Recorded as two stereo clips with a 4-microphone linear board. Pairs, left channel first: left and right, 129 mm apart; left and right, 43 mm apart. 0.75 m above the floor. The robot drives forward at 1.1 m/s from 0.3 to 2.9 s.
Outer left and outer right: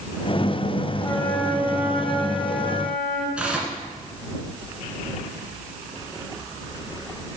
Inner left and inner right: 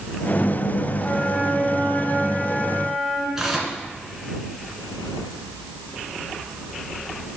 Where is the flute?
15° left (ahead or behind), 1.0 m; by 3.3 s 5° left (ahead or behind), 3 m.